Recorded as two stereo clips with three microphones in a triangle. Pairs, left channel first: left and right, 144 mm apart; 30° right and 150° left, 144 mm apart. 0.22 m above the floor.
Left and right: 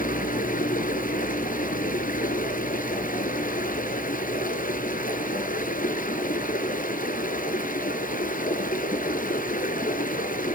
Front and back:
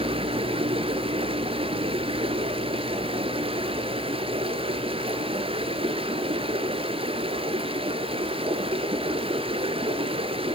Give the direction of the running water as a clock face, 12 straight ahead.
9 o'clock.